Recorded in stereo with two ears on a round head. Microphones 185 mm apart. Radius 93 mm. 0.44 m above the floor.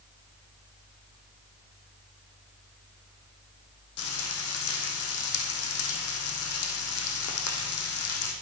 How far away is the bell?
No bell in this recording.